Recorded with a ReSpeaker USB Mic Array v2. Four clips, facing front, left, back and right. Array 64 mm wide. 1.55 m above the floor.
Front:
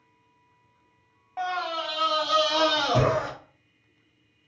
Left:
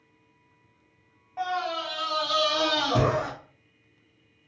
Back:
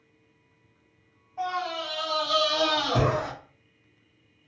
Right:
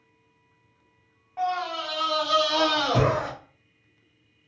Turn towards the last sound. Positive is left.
turn(degrees=-60)